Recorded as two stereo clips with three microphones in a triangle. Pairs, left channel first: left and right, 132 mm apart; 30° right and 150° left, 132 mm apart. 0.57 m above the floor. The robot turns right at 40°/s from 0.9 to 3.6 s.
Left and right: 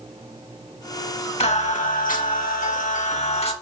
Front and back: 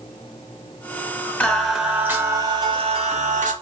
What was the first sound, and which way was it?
Singing, 45° left.